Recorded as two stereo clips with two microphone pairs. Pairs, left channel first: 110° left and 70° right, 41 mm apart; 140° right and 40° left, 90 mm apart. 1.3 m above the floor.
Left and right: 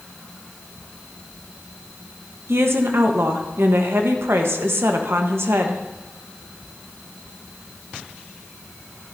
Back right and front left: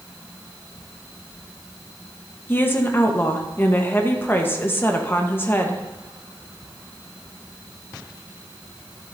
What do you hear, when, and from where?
2.5 s a woman speaking: 75° right, 1.2 m